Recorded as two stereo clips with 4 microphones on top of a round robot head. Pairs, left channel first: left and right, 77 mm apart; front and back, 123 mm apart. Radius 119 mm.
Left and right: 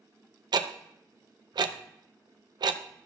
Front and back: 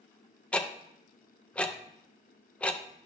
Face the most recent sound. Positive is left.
turn(degrees=-80)